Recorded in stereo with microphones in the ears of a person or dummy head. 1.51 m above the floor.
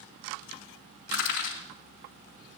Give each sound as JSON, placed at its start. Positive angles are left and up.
{"t": 1.1, "sound": "crushing", "side_deg": 65, "distance_m": 3.5}